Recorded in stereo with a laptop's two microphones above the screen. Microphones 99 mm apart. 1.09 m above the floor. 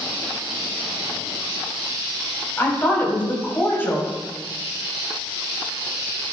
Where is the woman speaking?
25° left (ahead or behind), 5 m.